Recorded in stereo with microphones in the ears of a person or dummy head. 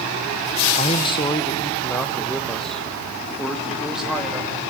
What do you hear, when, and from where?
0.8 s a man speaking: 35° left (ahead or behind), 0.9 m; by 4.6 s 5° right (ahead or behind), 3 m